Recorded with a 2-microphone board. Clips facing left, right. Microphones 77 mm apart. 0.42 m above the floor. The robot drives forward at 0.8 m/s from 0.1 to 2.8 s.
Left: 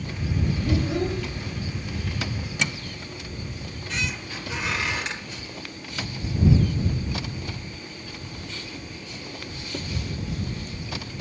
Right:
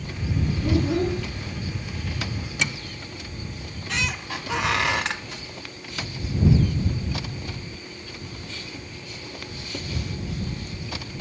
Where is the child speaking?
75° right (ahead or behind), 2.5 m; by 1.2 s 70° right (ahead or behind), 2.5 m.